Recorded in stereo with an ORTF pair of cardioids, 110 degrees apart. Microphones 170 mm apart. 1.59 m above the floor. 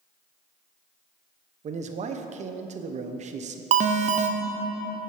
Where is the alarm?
45° right, 0.8 m.